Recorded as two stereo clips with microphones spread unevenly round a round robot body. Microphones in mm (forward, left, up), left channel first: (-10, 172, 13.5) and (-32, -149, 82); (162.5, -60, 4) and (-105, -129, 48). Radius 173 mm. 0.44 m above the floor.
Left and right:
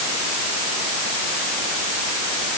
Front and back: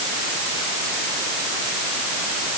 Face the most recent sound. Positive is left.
No sound to turn to.